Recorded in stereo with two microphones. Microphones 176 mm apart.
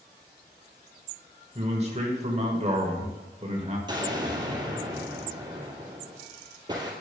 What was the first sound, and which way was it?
A man speaking, 40° right (ahead or behind).